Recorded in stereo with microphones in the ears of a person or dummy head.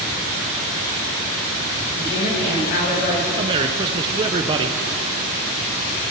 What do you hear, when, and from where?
1.9 s a woman speaking: 65° left (ahead or behind), 8.5 m
3.4 s a man speaking: 30° right (ahead or behind), 0.7 m